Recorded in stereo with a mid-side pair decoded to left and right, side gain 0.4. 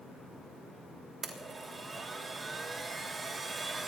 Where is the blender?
40° right, 3 m.